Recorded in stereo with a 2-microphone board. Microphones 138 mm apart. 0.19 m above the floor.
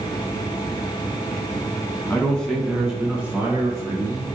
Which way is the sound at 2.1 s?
15° left (ahead or behind).